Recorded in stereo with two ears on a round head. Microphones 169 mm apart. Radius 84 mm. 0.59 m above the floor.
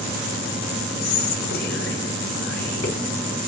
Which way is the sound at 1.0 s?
55° left (ahead or behind).